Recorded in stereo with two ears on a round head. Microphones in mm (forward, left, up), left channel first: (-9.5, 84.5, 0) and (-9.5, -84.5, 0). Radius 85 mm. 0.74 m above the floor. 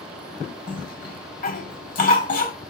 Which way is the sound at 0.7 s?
50° left (ahead or behind).